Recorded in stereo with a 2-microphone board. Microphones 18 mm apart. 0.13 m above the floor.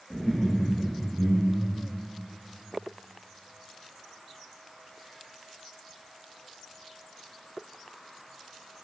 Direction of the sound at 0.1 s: 15° left (ahead or behind).